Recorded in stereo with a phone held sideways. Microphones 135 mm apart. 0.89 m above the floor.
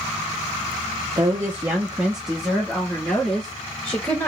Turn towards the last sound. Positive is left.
turn(degrees=15)  # may be behind; listen again after turning